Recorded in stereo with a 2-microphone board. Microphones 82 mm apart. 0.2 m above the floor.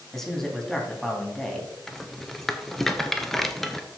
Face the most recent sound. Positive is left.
turn(degrees=5)  # may be behind; listen again after turning